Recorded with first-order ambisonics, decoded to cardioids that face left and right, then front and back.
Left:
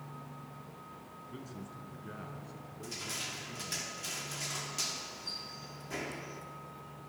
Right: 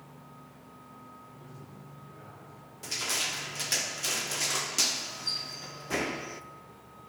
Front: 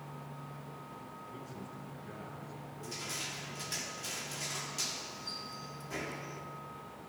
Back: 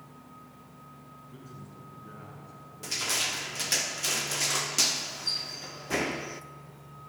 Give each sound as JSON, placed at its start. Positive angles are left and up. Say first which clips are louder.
{"t": 1.3, "sound": "a man speaking", "louder": "left 3 dB, front 2 dB", "azimuth_deg": 100, "distance_m": 6.5}
{"t": 2.8, "sound": "crushing", "louder": "right 9 dB, back 11 dB", "azimuth_deg": -140, "distance_m": 0.5}